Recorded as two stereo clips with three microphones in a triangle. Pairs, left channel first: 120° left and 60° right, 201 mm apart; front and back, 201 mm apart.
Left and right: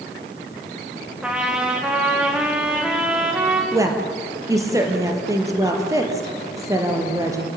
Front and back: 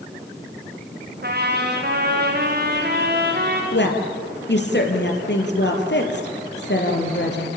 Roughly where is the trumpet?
Behind right.